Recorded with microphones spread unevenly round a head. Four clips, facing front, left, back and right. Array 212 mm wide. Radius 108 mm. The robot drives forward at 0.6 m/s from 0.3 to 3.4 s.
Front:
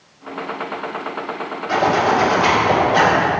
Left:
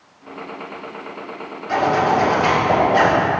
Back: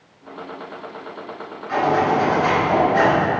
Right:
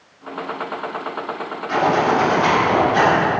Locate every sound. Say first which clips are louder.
1.7 s a zipper: even, front 2 dB; 25° left, 4 m; by 3.2 s 30° left, 3 m